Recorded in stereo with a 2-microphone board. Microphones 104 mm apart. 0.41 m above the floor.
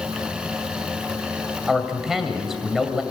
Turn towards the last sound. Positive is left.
turn(degrees=-5)  # may be behind; listen again after turning